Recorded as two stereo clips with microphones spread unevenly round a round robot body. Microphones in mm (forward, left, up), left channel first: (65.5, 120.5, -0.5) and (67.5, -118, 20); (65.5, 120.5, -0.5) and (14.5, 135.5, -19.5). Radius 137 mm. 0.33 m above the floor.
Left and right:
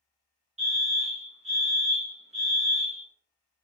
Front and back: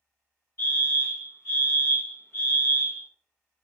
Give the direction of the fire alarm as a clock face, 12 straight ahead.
2 o'clock.